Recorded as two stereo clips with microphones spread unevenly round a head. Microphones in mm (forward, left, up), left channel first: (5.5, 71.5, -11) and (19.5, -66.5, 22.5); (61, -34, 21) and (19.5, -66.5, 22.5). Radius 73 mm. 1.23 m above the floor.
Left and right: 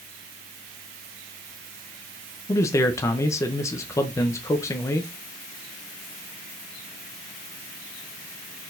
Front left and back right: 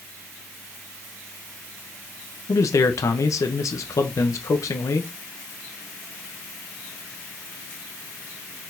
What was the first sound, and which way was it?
A man speaking, 30° left.